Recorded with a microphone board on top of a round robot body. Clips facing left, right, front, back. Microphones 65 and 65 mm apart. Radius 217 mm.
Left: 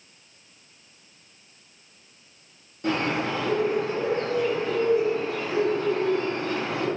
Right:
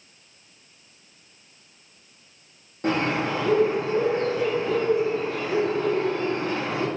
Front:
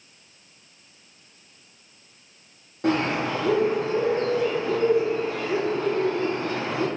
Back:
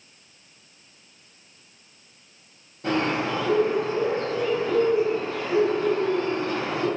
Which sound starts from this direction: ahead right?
A bird, at 2.8 s.